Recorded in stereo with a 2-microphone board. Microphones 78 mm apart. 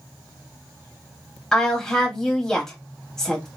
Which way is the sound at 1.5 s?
5° left (ahead or behind).